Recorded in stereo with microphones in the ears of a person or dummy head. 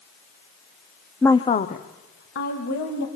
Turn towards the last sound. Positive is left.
turn(degrees=60)  # may be behind; listen again after turning